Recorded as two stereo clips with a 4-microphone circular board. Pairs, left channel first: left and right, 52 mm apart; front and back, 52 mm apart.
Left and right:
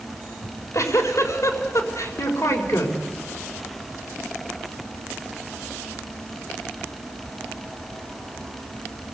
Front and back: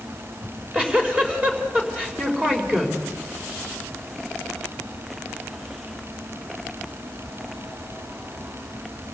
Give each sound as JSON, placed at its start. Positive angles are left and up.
{"t": 0.4, "sound": "a giggle", "azimuth_deg": 115, "distance_m": 4.5}